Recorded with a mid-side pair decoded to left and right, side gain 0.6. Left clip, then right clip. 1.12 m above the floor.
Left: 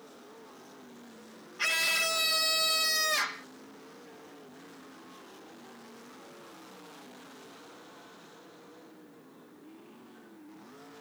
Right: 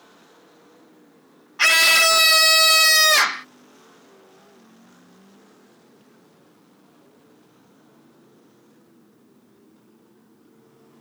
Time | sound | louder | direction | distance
1.6 | a scream | right 13 dB | 55° right | ?